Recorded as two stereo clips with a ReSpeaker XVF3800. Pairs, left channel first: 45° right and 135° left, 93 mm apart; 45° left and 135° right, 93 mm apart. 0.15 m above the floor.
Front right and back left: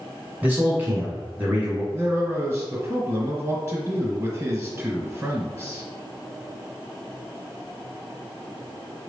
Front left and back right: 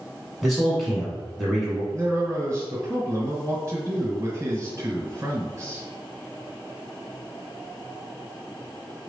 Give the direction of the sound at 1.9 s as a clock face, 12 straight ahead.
6 o'clock.